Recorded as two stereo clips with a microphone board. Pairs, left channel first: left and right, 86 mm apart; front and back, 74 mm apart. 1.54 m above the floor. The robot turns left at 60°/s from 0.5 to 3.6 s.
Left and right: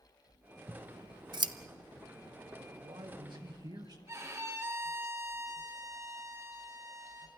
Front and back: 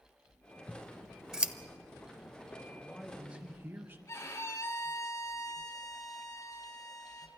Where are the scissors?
60° right, 0.9 m; by 1.5 s 110° right, 0.9 m.